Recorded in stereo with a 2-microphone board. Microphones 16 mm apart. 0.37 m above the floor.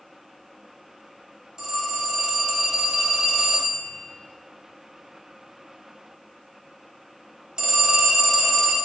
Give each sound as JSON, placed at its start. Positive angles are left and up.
{"t": 1.6, "sound": "a phone ringing", "side_deg": -60, "distance_m": 1.2}